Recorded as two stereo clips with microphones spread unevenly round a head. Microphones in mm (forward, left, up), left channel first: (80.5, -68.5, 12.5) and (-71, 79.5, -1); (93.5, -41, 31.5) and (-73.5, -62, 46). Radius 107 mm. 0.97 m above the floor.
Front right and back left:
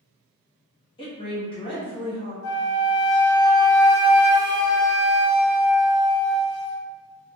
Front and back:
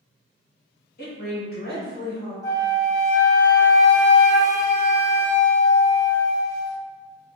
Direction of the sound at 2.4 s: 65° right.